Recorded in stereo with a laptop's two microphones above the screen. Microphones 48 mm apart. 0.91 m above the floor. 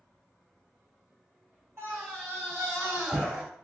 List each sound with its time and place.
1.8 s a scream: 55° right (ahead or behind), 2.5 m; by 3.4 s 25° right (ahead or behind), 3 m